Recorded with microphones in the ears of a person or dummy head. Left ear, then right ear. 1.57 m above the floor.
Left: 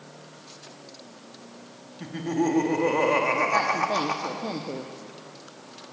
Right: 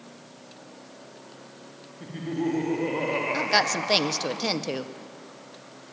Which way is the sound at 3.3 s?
70° right (ahead or behind).